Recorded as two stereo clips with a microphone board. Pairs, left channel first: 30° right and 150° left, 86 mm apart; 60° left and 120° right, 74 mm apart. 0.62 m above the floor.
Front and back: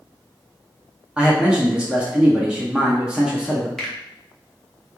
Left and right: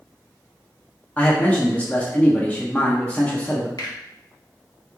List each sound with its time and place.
1.2 s a man speaking: 90° left, 0.5 m
3.8 s a finger snap: 55° left, 0.8 m